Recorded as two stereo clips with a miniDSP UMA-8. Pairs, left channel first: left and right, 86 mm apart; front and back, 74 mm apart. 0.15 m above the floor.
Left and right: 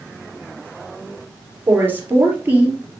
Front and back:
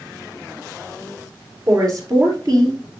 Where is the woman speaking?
150° right, 3.5 m; by 2.8 s 160° right, 3 m.